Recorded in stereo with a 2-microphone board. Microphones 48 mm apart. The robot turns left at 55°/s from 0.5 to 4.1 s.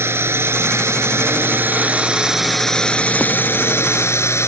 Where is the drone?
70° right; by 4.5 s 95° left.